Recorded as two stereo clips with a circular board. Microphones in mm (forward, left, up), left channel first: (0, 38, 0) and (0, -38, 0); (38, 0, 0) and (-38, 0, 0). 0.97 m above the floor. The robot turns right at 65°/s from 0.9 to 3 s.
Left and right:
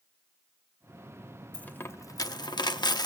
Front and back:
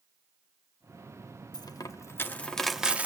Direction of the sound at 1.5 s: 15° left.